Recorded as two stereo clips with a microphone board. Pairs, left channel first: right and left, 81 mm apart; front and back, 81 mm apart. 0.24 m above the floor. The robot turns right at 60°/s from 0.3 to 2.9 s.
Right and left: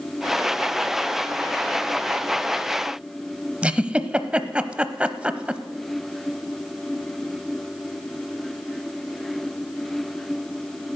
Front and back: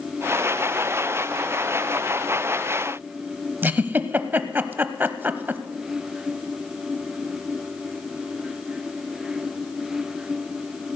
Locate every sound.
3.6 s a giggle: 150° left, 0.6 m